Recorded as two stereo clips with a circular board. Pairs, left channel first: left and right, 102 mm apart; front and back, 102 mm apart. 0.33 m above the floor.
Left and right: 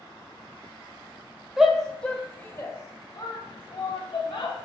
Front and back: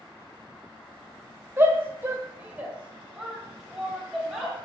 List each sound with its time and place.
1.6 s a shout: 170° right, 0.9 m; by 4.6 s 90° left, 1.8 m